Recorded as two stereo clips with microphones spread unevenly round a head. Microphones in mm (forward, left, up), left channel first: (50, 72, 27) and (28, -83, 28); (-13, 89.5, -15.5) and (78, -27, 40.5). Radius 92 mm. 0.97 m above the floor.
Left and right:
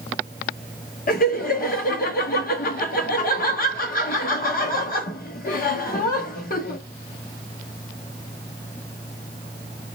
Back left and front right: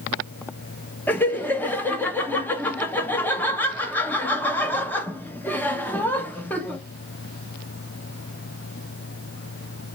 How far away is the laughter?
About 1.4 m.